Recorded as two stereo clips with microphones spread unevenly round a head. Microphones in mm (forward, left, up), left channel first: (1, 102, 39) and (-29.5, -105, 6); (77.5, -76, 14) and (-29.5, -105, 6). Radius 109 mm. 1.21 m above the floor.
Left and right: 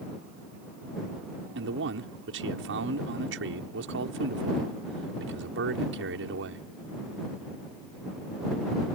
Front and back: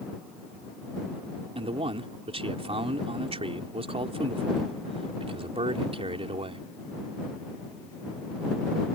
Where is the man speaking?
130° right.